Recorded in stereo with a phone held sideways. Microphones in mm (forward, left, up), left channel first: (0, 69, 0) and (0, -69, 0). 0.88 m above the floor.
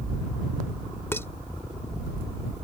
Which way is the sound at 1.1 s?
15° left (ahead or behind).